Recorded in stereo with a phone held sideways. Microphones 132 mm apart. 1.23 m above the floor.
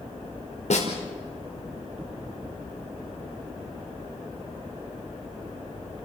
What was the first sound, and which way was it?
A snare drum, 65° left (ahead or behind).